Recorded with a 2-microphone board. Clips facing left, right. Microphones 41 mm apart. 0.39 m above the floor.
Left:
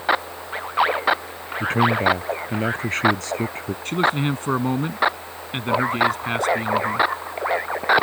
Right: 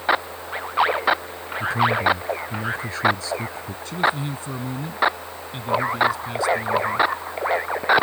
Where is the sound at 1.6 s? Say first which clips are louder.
Left 1 dB; 55° left (ahead or behind).